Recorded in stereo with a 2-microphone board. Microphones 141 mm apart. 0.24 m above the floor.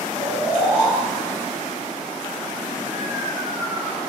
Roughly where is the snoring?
Centre.